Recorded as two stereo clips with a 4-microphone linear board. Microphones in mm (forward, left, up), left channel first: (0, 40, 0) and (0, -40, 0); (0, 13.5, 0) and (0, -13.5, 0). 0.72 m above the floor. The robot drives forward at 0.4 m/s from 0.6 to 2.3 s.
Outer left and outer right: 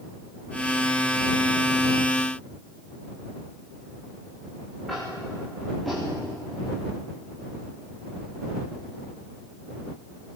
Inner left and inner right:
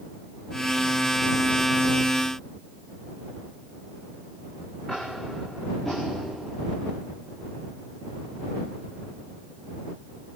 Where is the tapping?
Centre (ahead or behind), 9.5 m.